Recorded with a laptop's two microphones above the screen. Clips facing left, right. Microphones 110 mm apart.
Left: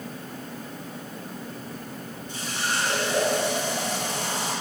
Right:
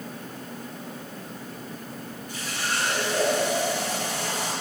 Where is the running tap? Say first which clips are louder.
Left 1 dB; 25° left (ahead or behind), 9.5 m.